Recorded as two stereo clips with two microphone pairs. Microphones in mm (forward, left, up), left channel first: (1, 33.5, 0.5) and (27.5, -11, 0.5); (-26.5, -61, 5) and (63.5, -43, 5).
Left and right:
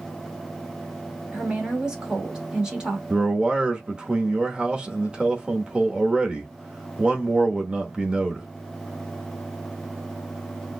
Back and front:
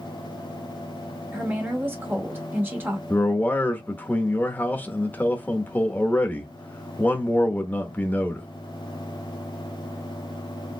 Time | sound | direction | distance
1.3 | a woman speaking | 10° right | 1.0 m
3.1 | a man speaking | 115° right | 0.9 m